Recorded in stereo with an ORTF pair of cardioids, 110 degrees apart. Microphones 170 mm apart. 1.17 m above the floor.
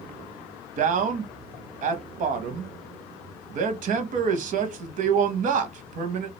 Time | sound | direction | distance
0.8 | a man speaking | 50° right | 0.6 m